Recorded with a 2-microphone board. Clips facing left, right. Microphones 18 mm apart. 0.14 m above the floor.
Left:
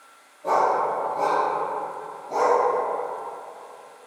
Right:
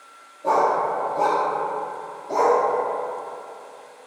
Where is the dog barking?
25° right (ahead or behind), 1.5 m; by 2.6 s 65° right (ahead or behind), 1.7 m.